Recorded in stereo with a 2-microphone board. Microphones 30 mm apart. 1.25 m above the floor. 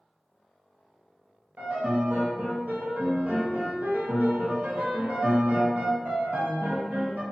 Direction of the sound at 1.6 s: 60° right (ahead or behind).